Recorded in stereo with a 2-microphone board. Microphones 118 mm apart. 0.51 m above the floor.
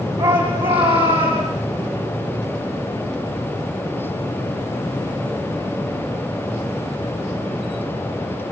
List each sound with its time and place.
0.2 s a shout: 45° right (ahead or behind), 4.5 m; by 1.5 s 55° right (ahead or behind), 6 m